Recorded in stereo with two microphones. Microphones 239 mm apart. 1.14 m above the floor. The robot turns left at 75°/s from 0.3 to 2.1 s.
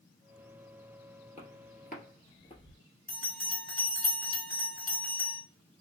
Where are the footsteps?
25° left (ahead or behind), 1.3 m; by 2.8 s 20° left (ahead or behind), 1.5 m.